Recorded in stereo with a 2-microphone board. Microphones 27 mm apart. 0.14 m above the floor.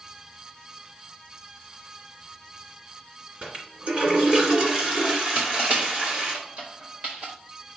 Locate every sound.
3.4 s a toilet flushing: 40° right (ahead or behind), 2 m
5.3 s crushing: 70° right (ahead or behind), 4.5 m